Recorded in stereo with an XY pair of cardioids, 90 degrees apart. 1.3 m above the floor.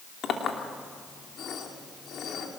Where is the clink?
65° left, 2.5 m.